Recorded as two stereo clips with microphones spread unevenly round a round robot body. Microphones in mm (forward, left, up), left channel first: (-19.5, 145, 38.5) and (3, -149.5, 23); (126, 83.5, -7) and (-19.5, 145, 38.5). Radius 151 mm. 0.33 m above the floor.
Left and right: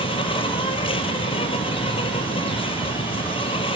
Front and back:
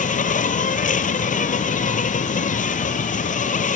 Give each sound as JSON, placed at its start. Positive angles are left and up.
{"t": 0.0, "sound": "an insect", "azimuth_deg": 20, "distance_m": 1.0}